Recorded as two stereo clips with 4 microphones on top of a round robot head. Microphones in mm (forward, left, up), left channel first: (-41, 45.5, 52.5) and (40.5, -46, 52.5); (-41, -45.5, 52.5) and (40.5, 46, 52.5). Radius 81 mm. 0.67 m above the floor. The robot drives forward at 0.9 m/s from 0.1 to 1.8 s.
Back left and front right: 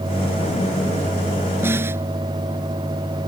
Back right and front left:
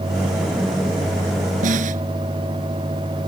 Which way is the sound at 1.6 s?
25° left.